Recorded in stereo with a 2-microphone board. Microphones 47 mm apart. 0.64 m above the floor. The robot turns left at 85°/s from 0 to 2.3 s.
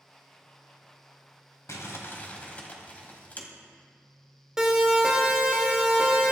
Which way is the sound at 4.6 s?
10° right (ahead or behind).